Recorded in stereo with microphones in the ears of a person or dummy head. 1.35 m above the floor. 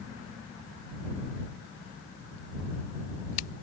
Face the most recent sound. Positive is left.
No sound to turn to.